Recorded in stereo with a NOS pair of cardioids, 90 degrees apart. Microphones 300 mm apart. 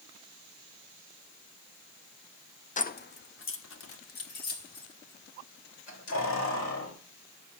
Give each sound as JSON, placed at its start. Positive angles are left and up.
{"t": 2.8, "sound": "keys jangling", "azimuth_deg": 25, "distance_m": 0.6}